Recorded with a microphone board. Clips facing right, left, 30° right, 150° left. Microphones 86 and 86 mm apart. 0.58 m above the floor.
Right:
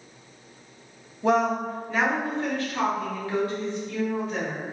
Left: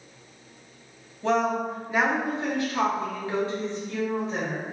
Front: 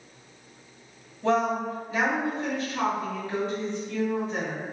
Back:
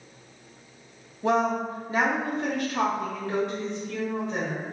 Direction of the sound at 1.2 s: 150° right.